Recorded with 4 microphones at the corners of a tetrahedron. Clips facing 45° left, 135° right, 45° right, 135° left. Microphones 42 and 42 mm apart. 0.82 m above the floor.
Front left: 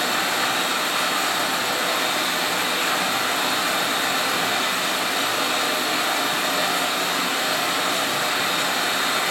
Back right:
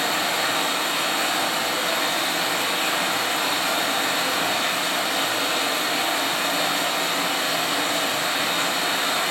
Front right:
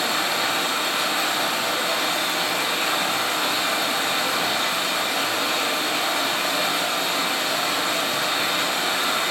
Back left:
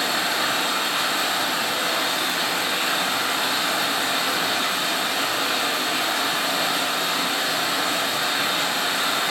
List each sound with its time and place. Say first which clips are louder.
0.0 s running water: front left 1 dB, even; 50° left, 1.3 m